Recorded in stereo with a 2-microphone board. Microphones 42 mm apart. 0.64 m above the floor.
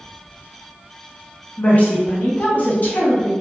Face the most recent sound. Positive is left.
turn(degrees=40)  # may be behind; listen again after turning